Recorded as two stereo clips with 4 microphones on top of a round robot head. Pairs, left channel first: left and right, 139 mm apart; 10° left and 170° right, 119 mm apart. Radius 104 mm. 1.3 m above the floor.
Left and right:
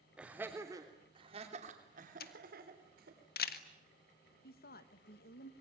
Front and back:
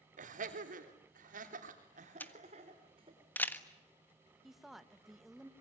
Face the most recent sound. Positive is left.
turn(degrees=105)